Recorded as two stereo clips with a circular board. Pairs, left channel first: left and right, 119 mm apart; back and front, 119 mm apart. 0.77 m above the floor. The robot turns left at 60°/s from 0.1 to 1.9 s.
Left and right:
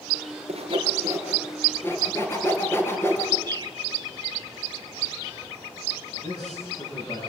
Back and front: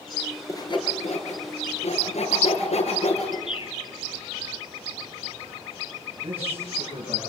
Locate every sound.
0.5 s sawing: 115° right, 4.5 m; by 3.4 s 160° left, 4.5 m
3.5 s a bird: 145° right, 0.8 m
6.1 s a man speaking: 45° left, 9.5 m